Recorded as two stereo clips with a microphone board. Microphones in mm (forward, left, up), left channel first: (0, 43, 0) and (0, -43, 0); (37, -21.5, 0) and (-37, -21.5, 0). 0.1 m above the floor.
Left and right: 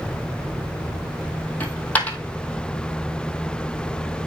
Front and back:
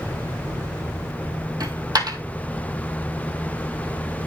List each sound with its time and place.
1.6 s a dropped coin: 160° left, 1.8 m